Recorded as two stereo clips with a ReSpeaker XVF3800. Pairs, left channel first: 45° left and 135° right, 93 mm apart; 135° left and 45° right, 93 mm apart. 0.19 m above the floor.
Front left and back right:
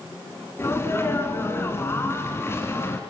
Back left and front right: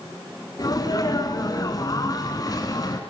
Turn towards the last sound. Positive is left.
turn(degrees=100)